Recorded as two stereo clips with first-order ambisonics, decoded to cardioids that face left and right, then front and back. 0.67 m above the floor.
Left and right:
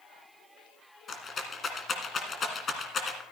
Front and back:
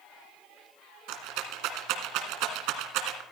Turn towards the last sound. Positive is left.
turn(degrees=160)